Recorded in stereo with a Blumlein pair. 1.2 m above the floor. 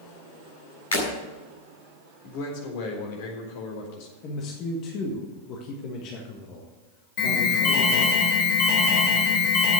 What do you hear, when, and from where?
0.9 s breaking glass: 70° left, 6.5 m
2.2 s a man speaking: 50° left, 4 m
4.2 s a man speaking: 35° left, 1.8 m
7.2 s an alarm: 40° left, 2.5 m